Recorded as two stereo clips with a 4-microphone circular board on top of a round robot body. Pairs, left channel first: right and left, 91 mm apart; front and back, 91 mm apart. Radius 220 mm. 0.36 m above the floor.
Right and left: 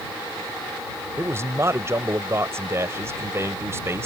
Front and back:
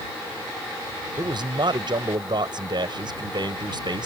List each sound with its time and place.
1.2 s a man speaking: 150° left